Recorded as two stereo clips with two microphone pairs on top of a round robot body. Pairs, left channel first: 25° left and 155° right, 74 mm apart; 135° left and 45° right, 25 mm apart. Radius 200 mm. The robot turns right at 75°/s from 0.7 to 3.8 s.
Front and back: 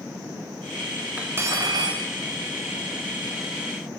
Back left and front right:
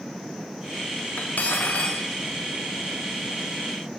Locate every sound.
1.2 s cutlery clinking: 135° left, 0.6 m; by 2.0 s 160° right, 0.6 m